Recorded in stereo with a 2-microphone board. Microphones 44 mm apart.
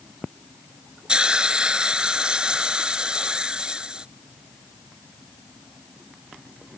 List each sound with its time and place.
1.1 s a hiss: 20° right (ahead or behind)